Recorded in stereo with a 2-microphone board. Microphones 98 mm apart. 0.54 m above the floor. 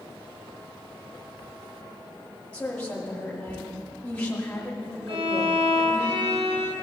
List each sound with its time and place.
2.5 s a woman speaking: 15° left (ahead or behind), 1.2 m
5.1 s a violin: 75° right (ahead or behind), 0.8 m